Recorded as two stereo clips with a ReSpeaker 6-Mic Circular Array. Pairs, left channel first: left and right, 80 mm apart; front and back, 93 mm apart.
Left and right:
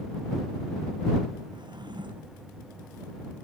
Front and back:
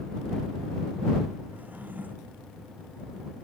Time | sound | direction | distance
1.5 | a drawer | 110° right | ?